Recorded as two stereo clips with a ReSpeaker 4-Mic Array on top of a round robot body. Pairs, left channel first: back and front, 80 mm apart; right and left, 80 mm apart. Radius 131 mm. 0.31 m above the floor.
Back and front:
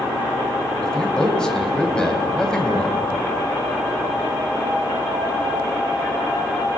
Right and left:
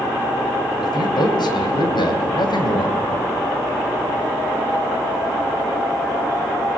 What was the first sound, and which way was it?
A man speaking, 100° right.